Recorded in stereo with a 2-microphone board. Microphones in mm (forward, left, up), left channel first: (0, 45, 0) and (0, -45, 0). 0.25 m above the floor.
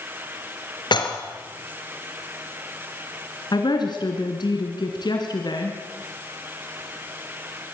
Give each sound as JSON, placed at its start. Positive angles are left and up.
{"t": 0.9, "sound": "dishes clattering", "side_deg": 65, "distance_m": 3.0}
{"t": 3.5, "sound": "a woman speaking", "side_deg": 60, "distance_m": 2.5}